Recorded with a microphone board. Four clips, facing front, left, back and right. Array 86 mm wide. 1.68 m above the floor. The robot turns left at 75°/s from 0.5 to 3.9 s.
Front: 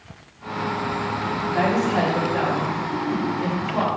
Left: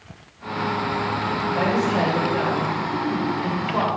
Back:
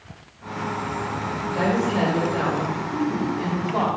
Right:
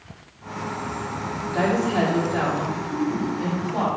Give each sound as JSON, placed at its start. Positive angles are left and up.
{"t": 1.5, "sound": "a woman speaking", "azimuth_deg": -25, "distance_m": 4.0}